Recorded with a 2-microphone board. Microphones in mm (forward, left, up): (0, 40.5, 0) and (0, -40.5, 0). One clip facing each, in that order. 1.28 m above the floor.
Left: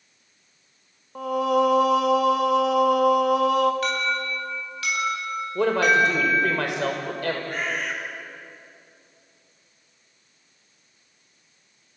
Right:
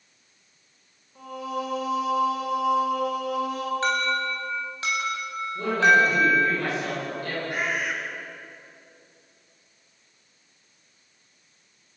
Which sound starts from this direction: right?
An alarm, at 3.8 s.